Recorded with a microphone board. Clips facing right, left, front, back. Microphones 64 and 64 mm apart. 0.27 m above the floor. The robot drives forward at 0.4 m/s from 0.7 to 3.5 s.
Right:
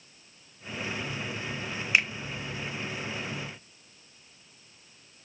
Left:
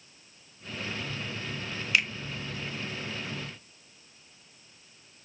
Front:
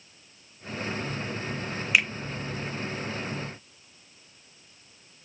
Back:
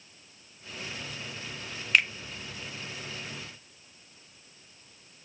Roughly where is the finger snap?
Right.